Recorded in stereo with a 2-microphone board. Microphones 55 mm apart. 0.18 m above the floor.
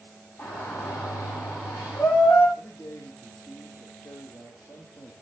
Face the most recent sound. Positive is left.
turn(degrees=70)  # may be behind; listen again after turning